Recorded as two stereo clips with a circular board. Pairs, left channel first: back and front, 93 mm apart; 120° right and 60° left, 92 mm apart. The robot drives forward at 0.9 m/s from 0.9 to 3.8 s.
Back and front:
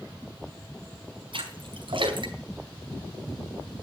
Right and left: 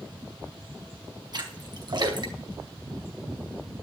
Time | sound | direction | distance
1.3 | a splash | 20° left | 5 m